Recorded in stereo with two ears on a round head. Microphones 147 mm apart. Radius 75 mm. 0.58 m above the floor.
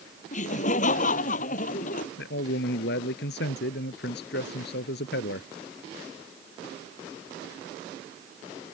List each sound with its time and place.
0.3 s laughter: 45° left (ahead or behind); by 2.1 s 50° left (ahead or behind)
2.2 s a man speaking: 70° left (ahead or behind)